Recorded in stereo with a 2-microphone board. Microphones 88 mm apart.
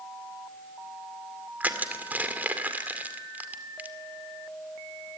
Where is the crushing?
20° right (ahead or behind), 2 m.